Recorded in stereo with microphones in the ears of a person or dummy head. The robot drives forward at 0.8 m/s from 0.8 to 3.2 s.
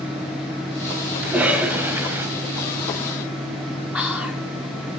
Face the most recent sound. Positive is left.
turn(degrees=-5)  # may be behind; listen again after turning